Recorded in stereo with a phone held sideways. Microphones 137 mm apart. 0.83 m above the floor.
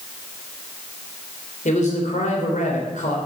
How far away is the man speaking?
About 3.5 m.